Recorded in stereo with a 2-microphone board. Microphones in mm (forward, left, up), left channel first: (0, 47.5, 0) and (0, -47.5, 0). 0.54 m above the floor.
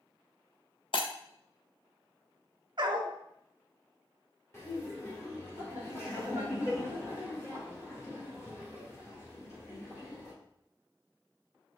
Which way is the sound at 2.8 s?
50° right (ahead or behind).